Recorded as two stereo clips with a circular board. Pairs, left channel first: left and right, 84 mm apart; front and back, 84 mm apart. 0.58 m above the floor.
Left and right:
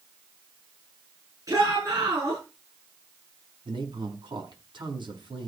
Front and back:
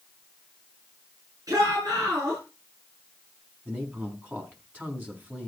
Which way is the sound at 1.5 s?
135° right.